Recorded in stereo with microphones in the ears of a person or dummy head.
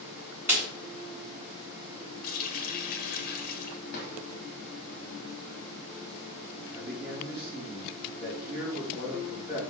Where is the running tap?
55° left (ahead or behind), 1.1 m.